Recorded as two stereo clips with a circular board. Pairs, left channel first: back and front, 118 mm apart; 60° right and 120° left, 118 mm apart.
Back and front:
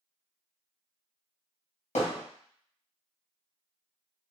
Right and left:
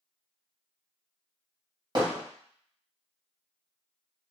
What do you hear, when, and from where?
1.9 s hammering: 170° left, 1.3 m